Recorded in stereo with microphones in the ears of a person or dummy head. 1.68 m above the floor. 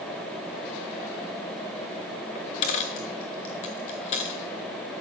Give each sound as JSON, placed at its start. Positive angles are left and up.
{"t": 2.4, "sound": "a dropped coin", "side_deg": 40, "distance_m": 1.2}